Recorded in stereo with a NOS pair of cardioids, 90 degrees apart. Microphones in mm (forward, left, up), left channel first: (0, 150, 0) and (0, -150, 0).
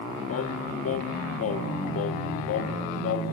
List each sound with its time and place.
0.3 s singing: 55° left, 1.0 m